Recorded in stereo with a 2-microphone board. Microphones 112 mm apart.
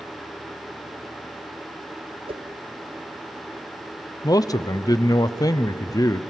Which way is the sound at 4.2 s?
35° left (ahead or behind).